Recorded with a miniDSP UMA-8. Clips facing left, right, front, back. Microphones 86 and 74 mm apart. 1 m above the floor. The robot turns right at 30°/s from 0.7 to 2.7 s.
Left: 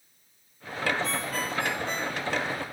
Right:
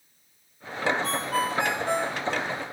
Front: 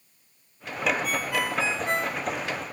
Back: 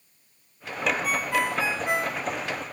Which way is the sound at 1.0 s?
125° right.